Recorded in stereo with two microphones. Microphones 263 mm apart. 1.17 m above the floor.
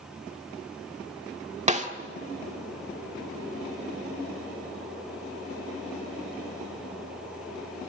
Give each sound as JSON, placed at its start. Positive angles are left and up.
{"t": 1.7, "sound": "a snare drum", "side_deg": -25, "distance_m": 1.4}